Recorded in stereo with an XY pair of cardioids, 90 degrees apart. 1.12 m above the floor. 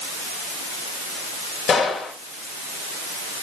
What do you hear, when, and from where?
1.7 s a gunshot: 70° left, 3.5 m